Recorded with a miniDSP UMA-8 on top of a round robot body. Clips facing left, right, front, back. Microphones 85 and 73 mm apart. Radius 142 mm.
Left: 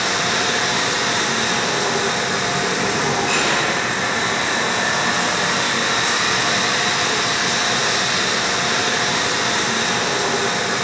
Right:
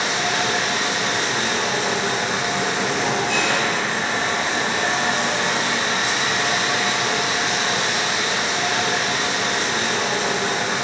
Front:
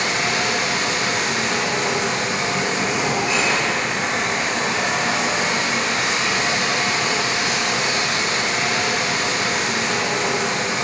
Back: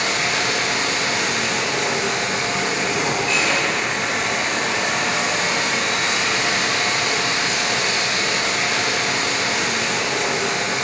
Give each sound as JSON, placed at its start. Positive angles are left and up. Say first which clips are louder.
{"t": 0.0, "sound": "running water", "louder": "left 1 dB, even", "azimuth_deg": 75, "distance_m": 7.0}